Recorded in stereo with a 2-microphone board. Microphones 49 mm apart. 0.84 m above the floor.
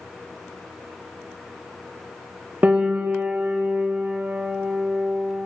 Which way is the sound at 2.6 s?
30° right (ahead or behind).